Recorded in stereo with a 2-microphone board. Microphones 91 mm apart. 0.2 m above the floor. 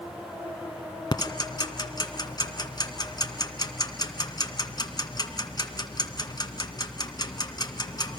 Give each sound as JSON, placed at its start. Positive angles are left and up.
{"t": 1.1, "sound": "ticking", "side_deg": 45, "distance_m": 1.9}